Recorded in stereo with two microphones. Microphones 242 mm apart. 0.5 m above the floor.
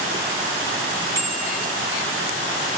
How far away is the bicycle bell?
About 5.5 m.